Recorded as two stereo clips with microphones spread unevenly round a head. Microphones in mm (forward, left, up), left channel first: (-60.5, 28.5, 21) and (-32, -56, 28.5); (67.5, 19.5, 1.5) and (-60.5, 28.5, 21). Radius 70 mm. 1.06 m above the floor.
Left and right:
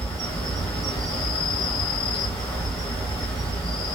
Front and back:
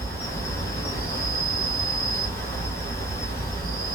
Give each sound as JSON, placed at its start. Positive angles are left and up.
{"t": 0.0, "sound": "an insect", "azimuth_deg": 55, "distance_m": 2.0}